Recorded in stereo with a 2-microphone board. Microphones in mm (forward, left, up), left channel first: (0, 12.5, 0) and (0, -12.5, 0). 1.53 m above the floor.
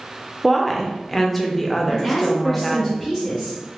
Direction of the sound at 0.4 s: Centre (ahead or behind).